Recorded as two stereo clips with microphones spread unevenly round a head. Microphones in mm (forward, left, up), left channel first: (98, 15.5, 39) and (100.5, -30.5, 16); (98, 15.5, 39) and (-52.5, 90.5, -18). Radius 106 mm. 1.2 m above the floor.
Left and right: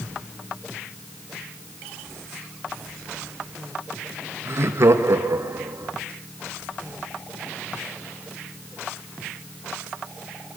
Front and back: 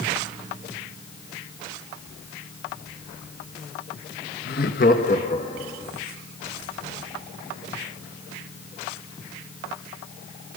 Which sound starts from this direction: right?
Laughter, at 4.5 s.